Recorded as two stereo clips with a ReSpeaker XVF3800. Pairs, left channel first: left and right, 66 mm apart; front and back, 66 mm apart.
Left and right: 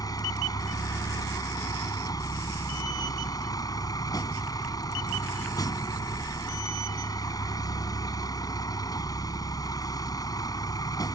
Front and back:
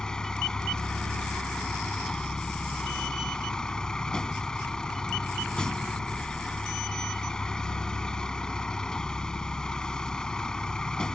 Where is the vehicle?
80° left.